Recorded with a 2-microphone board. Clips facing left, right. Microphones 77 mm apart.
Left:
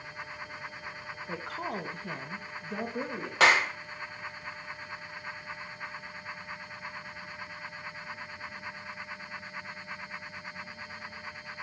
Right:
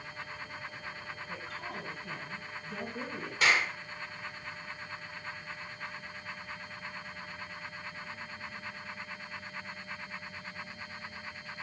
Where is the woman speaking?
75° left (ahead or behind), 2 m; by 3.3 s 30° left (ahead or behind), 3 m.